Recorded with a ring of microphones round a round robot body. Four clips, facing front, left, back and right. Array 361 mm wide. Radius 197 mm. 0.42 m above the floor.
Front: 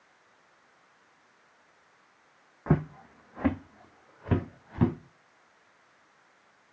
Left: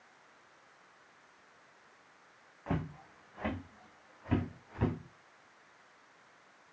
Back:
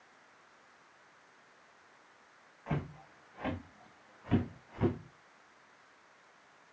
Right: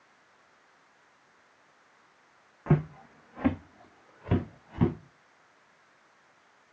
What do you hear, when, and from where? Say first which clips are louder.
2.7 s footsteps: right 9 dB, front 10 dB; 30° right, 1.5 m; by 5.0 s 35° right, 3.5 m